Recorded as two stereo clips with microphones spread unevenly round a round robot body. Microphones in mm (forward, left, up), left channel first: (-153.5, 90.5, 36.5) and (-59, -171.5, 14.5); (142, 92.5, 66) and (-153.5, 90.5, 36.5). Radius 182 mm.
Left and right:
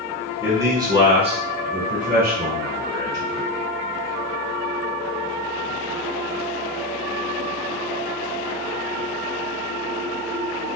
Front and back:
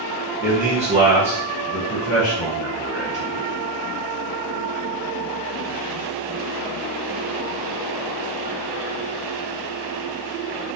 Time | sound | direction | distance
0.4 | a man speaking | 145° right | 1.5 m